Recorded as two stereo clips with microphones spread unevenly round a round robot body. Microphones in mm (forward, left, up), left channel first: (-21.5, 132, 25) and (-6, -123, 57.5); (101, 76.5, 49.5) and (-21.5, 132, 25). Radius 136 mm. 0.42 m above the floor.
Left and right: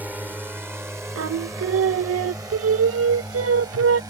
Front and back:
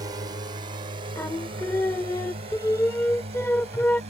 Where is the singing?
105° right.